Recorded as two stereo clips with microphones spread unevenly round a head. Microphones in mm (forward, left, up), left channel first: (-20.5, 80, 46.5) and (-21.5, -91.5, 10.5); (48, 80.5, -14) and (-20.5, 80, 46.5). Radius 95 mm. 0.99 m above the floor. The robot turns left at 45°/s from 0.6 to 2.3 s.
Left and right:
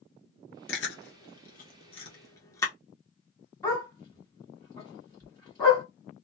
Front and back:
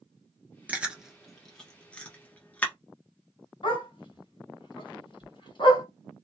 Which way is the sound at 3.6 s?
25° left.